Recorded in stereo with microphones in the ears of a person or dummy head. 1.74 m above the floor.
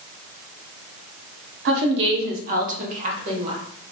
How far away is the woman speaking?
About 0.9 m.